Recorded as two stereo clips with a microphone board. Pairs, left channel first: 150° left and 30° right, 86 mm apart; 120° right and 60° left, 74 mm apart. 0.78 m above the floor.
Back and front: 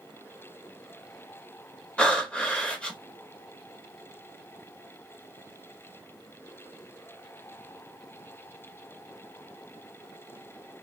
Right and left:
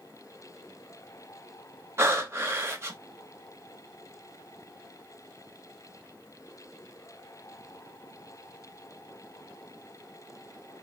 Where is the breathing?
80° left, 0.7 m.